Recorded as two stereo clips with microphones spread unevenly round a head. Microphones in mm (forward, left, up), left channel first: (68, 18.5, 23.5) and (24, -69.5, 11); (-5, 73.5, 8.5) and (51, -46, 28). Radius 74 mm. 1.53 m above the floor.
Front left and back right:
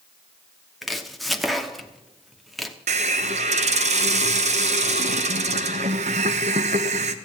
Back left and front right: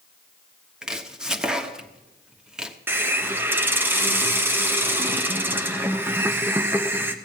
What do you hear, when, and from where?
0.8 s chopping: 10° right, 1.1 m
2.9 s a hiss: 140° right, 0.7 m